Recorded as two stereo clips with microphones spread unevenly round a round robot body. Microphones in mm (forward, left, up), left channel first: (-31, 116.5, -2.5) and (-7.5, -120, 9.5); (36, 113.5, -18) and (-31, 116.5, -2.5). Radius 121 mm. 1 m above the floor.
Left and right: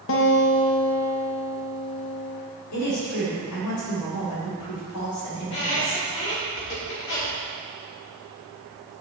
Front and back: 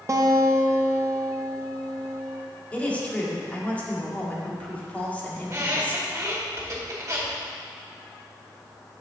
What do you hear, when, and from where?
0.1 s a guitar: 130° left, 0.9 m
2.7 s a woman speaking: 70° left, 2 m
5.4 s a squeak: 135° left, 2 m